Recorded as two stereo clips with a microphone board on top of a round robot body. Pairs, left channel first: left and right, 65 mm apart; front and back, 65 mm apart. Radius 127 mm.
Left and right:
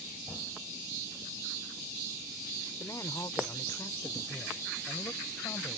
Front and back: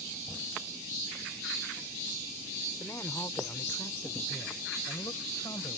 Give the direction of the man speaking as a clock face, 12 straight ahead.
10 o'clock.